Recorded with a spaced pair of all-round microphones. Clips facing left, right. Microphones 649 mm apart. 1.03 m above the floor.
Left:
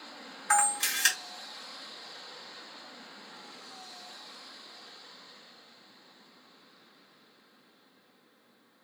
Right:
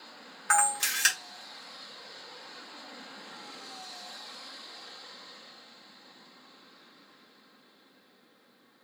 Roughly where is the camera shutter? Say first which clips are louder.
Even; right.